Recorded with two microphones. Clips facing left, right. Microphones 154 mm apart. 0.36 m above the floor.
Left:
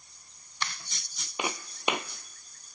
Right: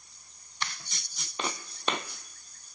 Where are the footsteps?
15° left (ahead or behind), 0.6 m.